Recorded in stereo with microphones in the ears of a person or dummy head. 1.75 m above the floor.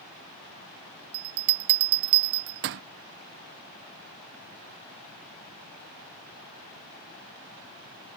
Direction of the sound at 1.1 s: 50° right (ahead or behind).